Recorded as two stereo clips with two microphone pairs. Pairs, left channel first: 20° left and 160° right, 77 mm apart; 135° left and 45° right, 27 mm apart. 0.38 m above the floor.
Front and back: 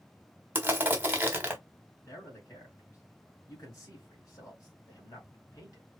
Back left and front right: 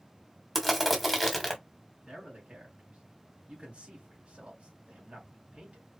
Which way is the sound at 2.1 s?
25° right.